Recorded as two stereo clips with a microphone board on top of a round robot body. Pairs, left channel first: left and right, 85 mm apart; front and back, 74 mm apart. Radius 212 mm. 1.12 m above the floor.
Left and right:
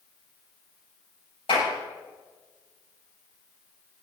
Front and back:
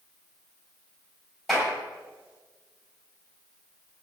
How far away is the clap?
About 8 m.